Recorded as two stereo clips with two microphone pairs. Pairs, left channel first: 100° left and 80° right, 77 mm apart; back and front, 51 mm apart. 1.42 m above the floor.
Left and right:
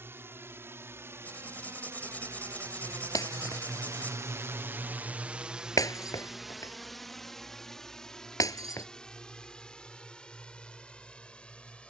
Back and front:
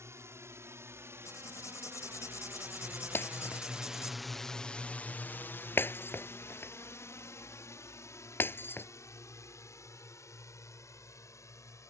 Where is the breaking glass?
140° left.